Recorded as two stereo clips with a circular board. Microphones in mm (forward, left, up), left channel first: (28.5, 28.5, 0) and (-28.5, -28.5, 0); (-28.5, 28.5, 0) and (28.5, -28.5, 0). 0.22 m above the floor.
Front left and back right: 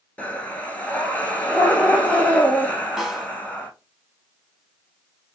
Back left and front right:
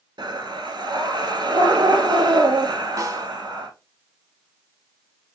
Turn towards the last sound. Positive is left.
turn(degrees=-50)